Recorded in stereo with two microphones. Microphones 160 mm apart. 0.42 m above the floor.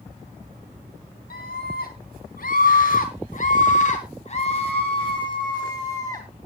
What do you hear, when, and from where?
1.3 s a scream: 70° left (ahead or behind), 4.5 m; by 6.3 s 20° left (ahead or behind), 3 m